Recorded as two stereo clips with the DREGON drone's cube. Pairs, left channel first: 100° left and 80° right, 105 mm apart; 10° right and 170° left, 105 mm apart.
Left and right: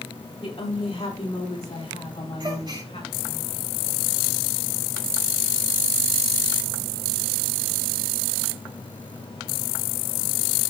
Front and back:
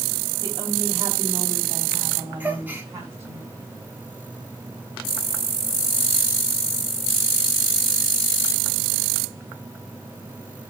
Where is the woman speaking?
120° left, 5 m; by 3.4 s 105° left, 7 m.